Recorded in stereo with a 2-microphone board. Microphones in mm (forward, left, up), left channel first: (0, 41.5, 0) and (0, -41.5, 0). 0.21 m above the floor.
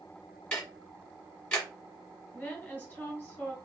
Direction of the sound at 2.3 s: 20° left (ahead or behind).